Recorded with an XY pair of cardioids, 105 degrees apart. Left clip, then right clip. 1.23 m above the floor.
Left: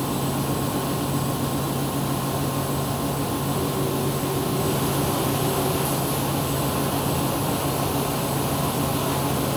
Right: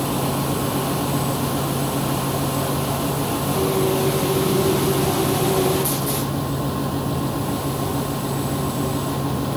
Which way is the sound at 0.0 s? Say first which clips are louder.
Right 3 dB; 10° right.